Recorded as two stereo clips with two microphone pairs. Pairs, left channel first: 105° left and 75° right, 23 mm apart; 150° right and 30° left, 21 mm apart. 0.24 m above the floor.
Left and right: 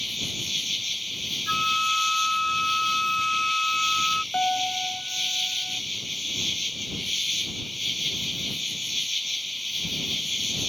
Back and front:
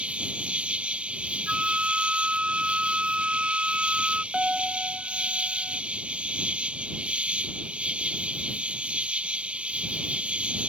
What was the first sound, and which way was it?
An insect, 10° left.